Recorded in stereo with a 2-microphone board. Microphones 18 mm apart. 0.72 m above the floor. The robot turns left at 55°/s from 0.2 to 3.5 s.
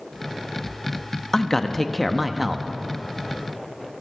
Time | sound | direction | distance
1.3 | a man speaking | 45° left | 0.8 m